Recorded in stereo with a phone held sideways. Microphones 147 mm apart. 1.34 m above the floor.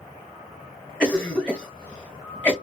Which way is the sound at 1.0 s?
5° left (ahead or behind).